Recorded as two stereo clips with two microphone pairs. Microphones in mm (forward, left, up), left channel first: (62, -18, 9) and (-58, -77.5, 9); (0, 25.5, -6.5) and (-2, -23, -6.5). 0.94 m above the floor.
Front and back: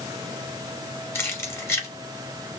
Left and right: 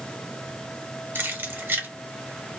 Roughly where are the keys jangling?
Ahead right.